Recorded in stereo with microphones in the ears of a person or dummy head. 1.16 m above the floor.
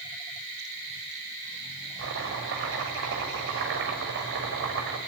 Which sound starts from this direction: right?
Chopping, at 2.0 s.